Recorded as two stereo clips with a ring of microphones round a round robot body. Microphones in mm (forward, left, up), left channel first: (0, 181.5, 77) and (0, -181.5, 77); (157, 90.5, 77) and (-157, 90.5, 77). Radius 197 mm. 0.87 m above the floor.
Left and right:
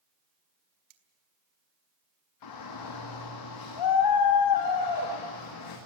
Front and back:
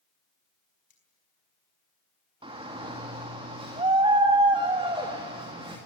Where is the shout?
105° left, 2 m.